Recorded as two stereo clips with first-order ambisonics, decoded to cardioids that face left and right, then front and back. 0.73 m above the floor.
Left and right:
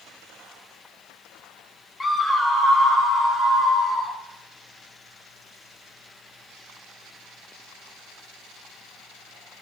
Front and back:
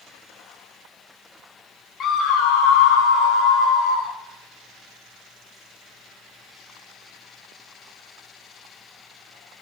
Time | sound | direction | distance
2.0 | a scream | 25° left | 0.5 m